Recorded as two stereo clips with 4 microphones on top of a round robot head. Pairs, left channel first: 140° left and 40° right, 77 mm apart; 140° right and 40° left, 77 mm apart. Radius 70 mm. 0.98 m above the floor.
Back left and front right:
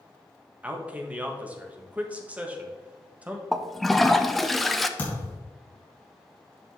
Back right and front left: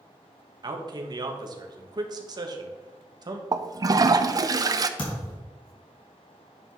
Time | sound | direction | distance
0.6 | a man speaking | 30° left | 1.3 m
3.5 | a toilet flushing | 50° left | 0.6 m
5.0 | a thud | 155° right | 3.5 m